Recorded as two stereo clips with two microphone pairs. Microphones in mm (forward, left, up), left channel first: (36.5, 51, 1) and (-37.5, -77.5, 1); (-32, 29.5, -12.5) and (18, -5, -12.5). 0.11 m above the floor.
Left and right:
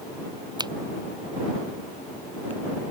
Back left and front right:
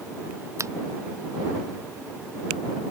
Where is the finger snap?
60° right.